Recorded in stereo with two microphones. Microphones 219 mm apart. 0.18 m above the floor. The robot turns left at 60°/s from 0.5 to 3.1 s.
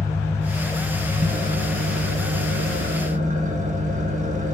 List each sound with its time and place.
0.0 s an engine running: 15° left, 1.0 m; by 4.5 s 140° right, 1.0 m